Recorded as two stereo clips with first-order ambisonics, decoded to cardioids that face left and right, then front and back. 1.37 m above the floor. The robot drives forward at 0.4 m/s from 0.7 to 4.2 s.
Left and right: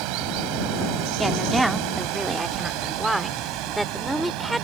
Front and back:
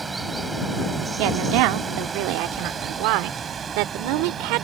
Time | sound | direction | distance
0.0 | running water | 105° right | ?
1.2 | a woman speaking | 175° right | ?